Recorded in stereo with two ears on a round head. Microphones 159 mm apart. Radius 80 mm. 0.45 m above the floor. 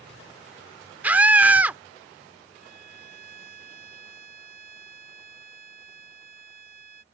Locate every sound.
1.0 s a scream: 10° right (ahead or behind)
2.5 s a violin: 55° right (ahead or behind)